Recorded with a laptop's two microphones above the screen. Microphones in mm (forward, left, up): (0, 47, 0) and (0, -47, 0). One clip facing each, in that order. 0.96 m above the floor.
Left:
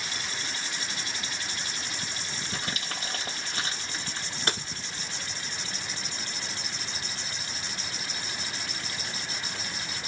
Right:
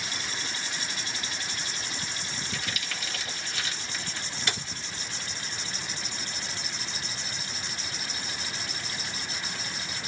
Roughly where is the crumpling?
Left.